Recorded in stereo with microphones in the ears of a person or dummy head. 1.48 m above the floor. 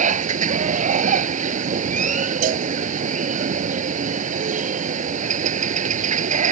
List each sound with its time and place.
0.0 s running water: 45° right (ahead or behind)
2.4 s a cowbell: 45° right (ahead or behind)